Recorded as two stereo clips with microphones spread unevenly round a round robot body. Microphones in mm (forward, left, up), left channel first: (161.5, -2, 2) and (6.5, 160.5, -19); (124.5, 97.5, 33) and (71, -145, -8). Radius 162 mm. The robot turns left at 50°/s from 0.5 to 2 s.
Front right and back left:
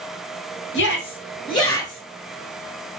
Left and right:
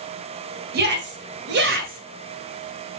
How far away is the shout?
About 1.8 m.